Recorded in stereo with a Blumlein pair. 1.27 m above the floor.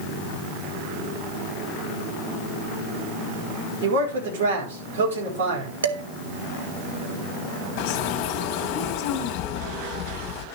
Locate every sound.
3.8 s a man speaking: 60° right, 5 m
5.8 s dishes clattering: 65° right, 1.2 m
7.8 s a bird: 35° left, 2.5 m